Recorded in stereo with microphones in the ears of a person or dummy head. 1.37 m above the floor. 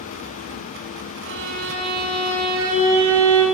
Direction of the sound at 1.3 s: 80° right.